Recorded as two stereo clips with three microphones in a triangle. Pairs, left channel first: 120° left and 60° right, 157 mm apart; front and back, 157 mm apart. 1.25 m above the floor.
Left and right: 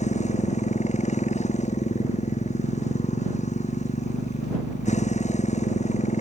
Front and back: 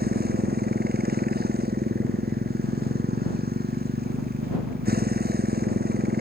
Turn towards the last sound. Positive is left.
turn(degrees=165)